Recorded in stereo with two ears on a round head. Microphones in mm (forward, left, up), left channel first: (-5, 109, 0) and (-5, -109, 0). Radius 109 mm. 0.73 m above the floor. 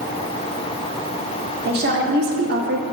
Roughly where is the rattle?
I don't hear a rattle.